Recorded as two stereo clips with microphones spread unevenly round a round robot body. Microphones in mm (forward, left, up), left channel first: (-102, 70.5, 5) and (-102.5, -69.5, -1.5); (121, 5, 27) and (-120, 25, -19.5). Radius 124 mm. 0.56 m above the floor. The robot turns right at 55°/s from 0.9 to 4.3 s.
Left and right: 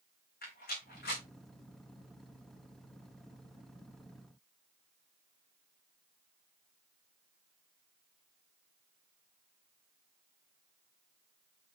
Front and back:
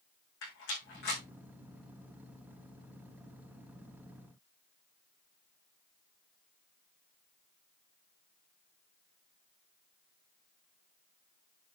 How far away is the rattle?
About 6 m.